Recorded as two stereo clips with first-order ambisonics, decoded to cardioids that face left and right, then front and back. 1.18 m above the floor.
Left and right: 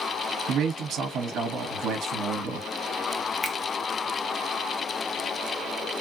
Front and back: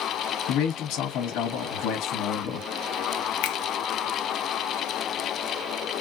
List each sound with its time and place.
0.5 s a man speaking: 35° right, 1.2 m
3.4 s a finger snap: 10° left, 0.5 m